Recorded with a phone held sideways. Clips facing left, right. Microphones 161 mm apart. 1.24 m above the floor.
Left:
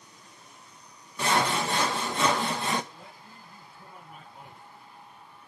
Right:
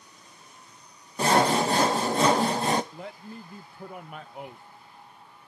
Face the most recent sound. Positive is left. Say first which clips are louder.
# right 9 dB
turn(degrees=-75)  # may be behind; listen again after turning